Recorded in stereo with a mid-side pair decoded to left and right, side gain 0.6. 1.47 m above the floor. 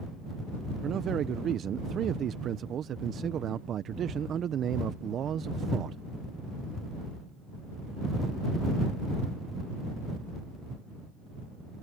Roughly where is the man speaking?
Ahead right.